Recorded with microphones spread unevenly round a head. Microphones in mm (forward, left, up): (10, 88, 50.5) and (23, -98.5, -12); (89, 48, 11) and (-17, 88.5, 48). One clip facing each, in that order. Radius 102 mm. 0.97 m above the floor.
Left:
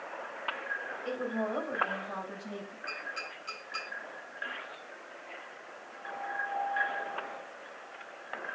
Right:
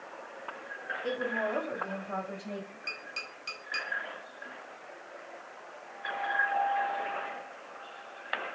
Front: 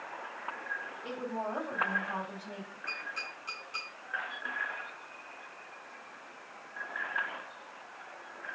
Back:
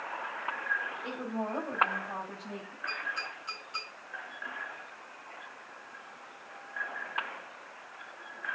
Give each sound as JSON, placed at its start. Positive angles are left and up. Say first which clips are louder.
{"t": 1.0, "sound": "a woman speaking", "louder": "right 1 dB, even", "azimuth_deg": -135, "distance_m": 5.0}
{"t": 2.9, "sound": "tapping", "louder": "left 2 dB, back 4 dB", "azimuth_deg": -110, "distance_m": 4.0}